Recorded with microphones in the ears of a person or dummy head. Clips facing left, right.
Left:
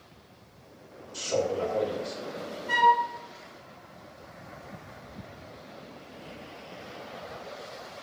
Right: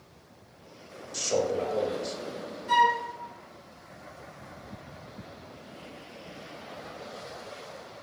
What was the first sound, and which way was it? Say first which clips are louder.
A man speaking: right 1 dB; 75° right (ahead or behind).